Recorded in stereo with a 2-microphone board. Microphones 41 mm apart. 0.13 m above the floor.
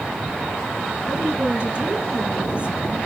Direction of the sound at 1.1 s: 30° right (ahead or behind).